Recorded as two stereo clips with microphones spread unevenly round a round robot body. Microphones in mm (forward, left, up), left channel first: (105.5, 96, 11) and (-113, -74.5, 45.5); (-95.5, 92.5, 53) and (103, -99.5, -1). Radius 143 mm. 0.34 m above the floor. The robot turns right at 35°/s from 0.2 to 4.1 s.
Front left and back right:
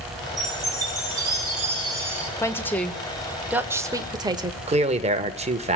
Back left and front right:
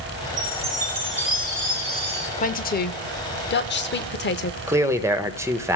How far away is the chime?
About 4.5 m.